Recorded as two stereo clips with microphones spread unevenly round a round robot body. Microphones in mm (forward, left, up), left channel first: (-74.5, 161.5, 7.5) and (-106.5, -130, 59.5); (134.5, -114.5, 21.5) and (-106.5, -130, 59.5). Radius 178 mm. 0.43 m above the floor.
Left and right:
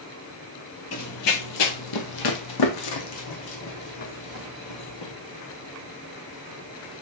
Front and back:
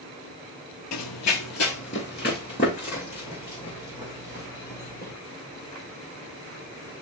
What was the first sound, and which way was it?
Running footsteps, 30° left.